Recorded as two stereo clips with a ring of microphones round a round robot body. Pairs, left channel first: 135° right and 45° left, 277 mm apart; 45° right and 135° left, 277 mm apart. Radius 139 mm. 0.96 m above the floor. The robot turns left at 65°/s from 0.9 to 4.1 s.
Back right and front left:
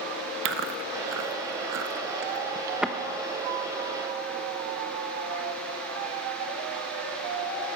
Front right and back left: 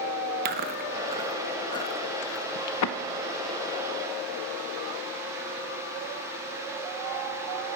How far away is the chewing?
About 0.8 m.